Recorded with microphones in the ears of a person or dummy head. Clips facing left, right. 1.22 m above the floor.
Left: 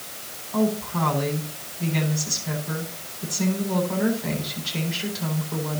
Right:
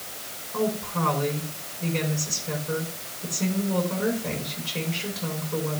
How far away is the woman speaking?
About 9.5 m.